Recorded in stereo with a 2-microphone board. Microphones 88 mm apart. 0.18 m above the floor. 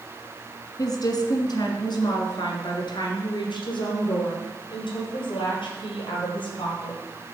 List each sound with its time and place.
0.8 s a woman speaking: 45° left (ahead or behind), 1.5 m; by 7.0 s 70° left (ahead or behind), 4.5 m